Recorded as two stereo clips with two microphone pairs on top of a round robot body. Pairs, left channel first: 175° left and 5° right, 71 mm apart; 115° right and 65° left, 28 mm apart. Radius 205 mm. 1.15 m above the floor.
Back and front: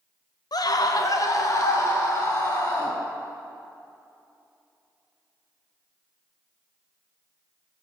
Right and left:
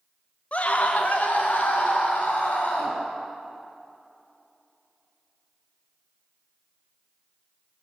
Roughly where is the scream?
Behind.